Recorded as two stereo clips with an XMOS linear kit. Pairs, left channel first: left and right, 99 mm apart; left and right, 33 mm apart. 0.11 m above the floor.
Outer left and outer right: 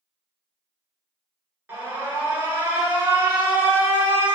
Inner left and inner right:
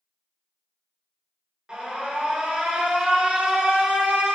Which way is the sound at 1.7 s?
25° right (ahead or behind).